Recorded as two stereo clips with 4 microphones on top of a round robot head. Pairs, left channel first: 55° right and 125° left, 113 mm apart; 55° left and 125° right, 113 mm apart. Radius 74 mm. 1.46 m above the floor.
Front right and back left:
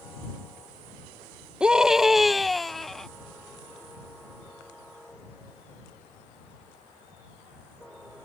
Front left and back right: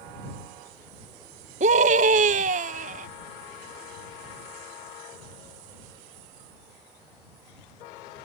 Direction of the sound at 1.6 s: 150° right.